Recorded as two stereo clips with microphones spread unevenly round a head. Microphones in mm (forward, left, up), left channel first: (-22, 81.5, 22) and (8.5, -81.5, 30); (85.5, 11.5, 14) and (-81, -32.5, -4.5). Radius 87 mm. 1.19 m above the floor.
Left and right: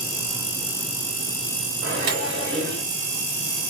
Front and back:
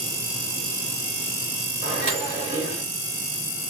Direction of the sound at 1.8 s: 110° right.